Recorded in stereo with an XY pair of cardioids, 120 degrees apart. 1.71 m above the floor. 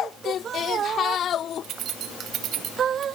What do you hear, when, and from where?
1.6 s keys jangling: 65° right, 2.5 m